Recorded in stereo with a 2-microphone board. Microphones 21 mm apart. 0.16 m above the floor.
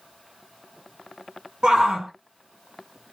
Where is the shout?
30° right (ahead or behind), 1.4 m.